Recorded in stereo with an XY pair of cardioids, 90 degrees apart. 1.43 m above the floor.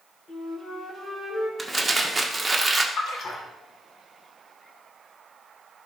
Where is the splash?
70° left, 2 m.